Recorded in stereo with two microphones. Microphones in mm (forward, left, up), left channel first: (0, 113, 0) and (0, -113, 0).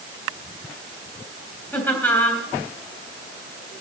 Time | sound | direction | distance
1.7 | laughter | 5° left (ahead or behind) | 3 m